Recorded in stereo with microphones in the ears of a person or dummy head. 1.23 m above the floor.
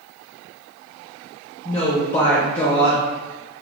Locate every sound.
1.6 s a woman speaking: 20° left (ahead or behind), 0.7 m